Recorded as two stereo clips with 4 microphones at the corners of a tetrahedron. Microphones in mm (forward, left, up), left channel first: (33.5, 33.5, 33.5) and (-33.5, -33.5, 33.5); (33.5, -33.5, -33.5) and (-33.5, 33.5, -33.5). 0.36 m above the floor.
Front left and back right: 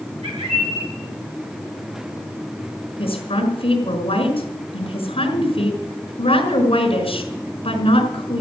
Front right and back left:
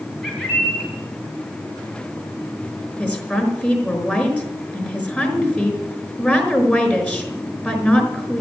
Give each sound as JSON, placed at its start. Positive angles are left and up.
{"t": 0.2, "sound": "a bird", "azimuth_deg": -135, "distance_m": 7.5}
{"t": 3.0, "sound": "a woman speaking", "azimuth_deg": 30, "distance_m": 5.0}